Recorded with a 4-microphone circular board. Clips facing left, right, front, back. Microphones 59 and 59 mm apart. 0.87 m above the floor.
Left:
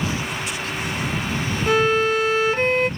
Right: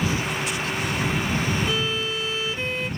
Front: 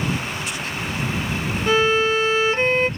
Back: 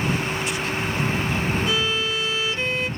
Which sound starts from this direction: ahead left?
A violin, at 1.7 s.